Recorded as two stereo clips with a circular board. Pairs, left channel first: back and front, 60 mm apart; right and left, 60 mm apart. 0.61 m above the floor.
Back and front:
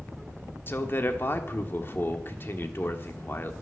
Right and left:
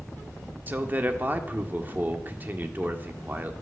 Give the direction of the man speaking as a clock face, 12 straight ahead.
7 o'clock.